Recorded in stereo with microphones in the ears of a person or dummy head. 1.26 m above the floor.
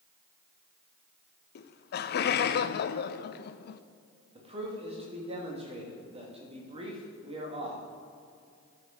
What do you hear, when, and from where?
1.6 s laughter: 60° left (ahead or behind), 0.6 m
4.3 s a man speaking: 30° right (ahead or behind), 1.7 m